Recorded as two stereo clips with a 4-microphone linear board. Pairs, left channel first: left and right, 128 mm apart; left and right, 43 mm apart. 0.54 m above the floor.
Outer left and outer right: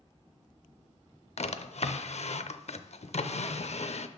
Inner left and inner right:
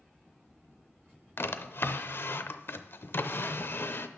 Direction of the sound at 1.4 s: 60° left (ahead or behind).